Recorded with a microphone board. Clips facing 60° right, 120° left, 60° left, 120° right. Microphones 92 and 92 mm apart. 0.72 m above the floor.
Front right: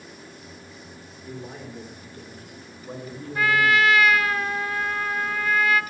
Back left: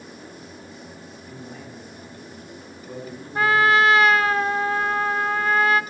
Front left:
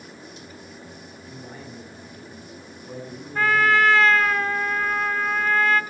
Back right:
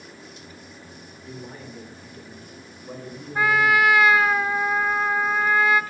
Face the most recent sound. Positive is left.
turn(degrees=165)